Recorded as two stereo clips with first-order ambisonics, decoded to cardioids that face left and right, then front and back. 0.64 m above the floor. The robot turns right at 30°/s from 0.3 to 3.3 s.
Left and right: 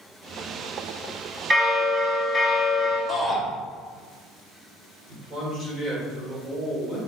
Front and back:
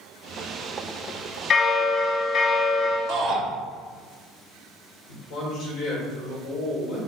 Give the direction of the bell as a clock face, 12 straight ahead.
1 o'clock.